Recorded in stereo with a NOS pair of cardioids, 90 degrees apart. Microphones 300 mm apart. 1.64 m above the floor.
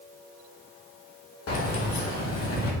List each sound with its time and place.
1.5 s keys jangling: 50° left, 1.7 m; by 2.7 s 60° left, 2.5 m